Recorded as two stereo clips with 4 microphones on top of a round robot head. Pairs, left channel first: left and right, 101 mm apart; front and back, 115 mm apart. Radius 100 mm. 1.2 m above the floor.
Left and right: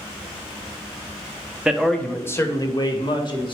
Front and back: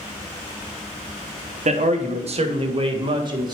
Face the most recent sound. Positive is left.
turn(degrees=125)